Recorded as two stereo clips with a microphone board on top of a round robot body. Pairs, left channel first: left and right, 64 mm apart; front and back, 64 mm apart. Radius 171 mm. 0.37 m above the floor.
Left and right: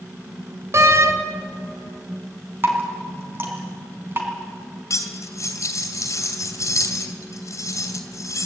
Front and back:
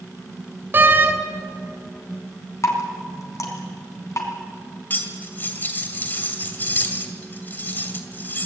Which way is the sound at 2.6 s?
35° right.